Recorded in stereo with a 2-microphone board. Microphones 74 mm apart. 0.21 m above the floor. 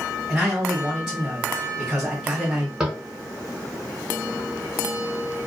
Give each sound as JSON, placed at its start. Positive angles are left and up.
{"t": 0.3, "sound": "a man speaking", "side_deg": -10, "distance_m": 1.2}
{"t": 2.8, "sound": "tapping", "side_deg": -10, "distance_m": 0.8}